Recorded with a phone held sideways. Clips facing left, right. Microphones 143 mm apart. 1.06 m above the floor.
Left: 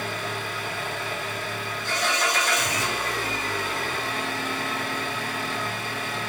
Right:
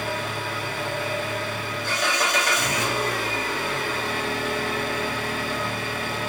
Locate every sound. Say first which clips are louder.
0.0 s an engine running: right 2 dB; 65° right (ahead or behind), 0.7 m